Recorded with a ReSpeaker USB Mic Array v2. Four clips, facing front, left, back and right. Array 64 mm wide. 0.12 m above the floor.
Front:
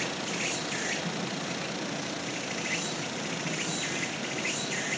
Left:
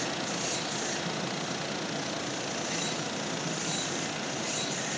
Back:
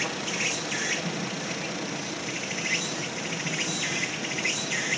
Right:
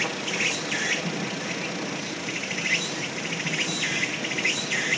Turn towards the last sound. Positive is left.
turn(degrees=-105)